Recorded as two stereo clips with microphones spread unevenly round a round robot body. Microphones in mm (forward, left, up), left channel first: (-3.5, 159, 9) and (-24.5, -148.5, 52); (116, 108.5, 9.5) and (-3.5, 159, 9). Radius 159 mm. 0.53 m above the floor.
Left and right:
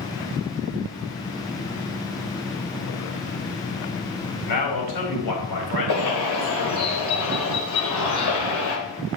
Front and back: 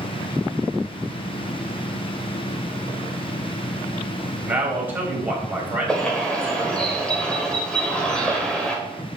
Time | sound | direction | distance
4.5 | a man speaking | 85° left | 3.5 m
5.9 | a bird | 60° left | 2.5 m